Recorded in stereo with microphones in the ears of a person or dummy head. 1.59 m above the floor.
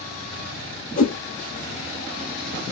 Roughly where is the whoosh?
Left.